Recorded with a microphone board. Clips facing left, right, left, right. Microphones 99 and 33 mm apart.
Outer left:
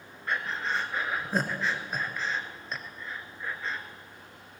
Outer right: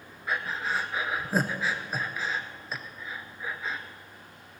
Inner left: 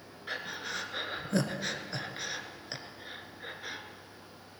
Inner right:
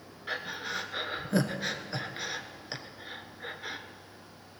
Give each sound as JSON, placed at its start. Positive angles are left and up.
{"t": 0.3, "sound": "breathing", "side_deg": -5, "distance_m": 1.1}